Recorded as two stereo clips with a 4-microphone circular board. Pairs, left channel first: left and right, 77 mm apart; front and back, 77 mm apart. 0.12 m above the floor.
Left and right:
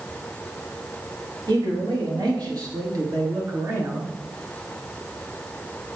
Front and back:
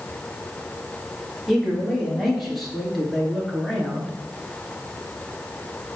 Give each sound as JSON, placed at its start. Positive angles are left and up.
{"t": 1.5, "sound": "a man speaking", "azimuth_deg": -90, "distance_m": 3.5}